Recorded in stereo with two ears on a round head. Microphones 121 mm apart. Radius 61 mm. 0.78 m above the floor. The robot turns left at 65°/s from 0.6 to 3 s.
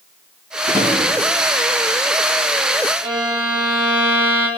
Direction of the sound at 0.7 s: 25° right (ahead or behind).